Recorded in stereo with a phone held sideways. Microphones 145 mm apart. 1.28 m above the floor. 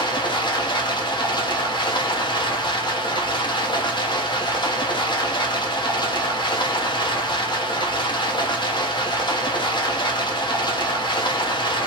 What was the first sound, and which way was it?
Running water, 30° left (ahead or behind).